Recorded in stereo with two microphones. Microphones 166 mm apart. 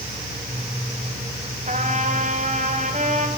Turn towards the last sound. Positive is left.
turn(degrees=-50)  # may be behind; listen again after turning